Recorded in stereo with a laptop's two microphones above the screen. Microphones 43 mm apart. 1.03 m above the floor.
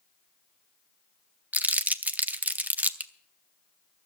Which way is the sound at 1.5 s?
40° right (ahead or behind).